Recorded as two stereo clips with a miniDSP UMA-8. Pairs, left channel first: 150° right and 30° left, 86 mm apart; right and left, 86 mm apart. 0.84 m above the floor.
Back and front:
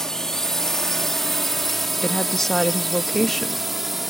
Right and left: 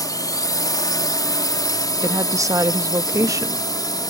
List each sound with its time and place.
0.0 s a drone: 65° right; by 4.1 s 60° right
2.0 s a woman speaking: 125° left